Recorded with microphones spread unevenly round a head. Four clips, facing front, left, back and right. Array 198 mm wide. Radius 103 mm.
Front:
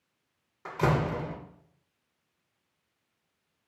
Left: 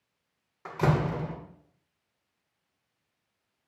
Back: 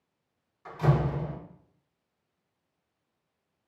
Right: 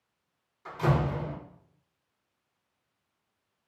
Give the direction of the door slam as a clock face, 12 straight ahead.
11 o'clock.